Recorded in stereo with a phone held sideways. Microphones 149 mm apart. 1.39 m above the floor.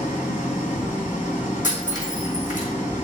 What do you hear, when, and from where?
0.0 s an engine running: 60° left (ahead or behind), 1.9 m
1.6 s breaking glass: 60° left (ahead or behind), 2.5 m